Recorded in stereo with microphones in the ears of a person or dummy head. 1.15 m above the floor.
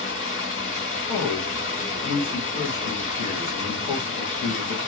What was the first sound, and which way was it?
Running water, 40° left (ahead or behind).